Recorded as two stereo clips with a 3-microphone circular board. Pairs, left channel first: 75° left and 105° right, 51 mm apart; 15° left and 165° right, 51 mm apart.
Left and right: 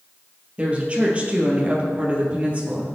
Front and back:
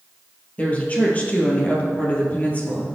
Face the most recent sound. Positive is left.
turn(degrees=-40)